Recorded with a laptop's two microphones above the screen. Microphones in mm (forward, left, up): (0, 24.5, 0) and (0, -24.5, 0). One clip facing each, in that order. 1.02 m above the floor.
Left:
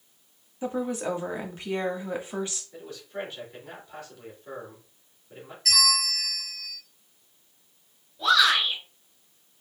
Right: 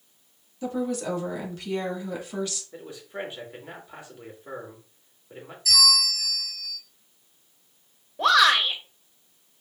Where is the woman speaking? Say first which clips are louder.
Right 1 dB; 25° left (ahead or behind), 1.5 m.